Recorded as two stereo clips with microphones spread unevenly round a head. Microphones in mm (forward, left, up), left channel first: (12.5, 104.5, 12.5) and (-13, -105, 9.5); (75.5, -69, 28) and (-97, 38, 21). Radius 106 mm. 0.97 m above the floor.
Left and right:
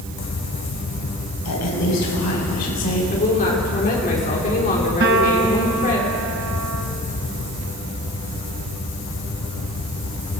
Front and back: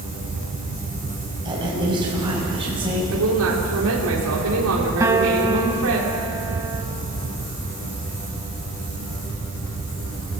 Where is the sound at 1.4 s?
75° left, 6.5 m; by 3.0 s 80° left, 7.5 m.